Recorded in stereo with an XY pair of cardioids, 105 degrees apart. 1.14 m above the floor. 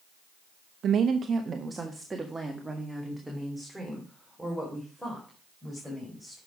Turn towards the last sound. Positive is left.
turn(degrees=5)